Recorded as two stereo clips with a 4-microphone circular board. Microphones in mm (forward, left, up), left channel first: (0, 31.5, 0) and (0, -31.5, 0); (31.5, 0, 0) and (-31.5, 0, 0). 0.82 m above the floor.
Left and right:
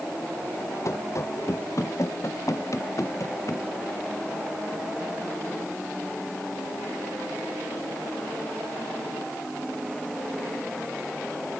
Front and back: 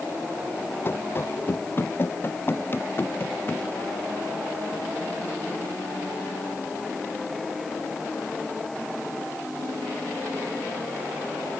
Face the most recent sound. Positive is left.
turn(degrees=55)